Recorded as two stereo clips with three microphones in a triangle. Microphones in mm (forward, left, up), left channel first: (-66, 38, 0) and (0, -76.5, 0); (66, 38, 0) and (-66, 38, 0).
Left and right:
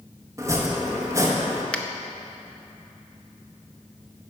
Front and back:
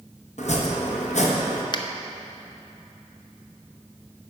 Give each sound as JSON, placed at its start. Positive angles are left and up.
{"t": 0.4, "sound": "chopping", "azimuth_deg": 5, "distance_m": 1.1}
{"t": 1.7, "sound": "a finger snap", "azimuth_deg": 40, "distance_m": 0.5}